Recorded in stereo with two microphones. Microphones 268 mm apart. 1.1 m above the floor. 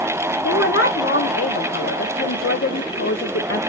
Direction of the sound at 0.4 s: 50° left (ahead or behind).